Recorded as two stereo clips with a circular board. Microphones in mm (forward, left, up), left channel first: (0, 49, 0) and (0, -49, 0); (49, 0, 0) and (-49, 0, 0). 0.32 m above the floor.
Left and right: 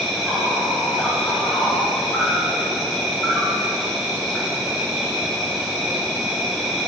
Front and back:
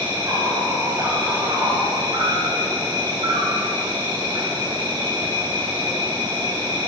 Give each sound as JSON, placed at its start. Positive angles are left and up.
{"t": 0.0, "sound": "an insect", "azimuth_deg": 180, "distance_m": 2.0}